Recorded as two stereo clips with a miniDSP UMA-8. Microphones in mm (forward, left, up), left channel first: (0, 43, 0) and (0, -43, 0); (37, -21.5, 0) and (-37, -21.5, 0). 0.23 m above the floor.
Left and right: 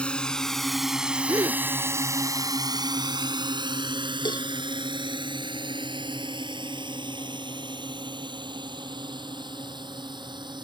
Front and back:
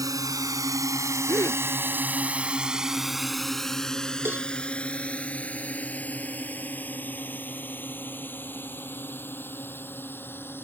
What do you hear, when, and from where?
0.0 s a drone: 165° left; by 10.7 s 60° right
1.3 s a gasp: 40° right
4.2 s a cowbell: 120° left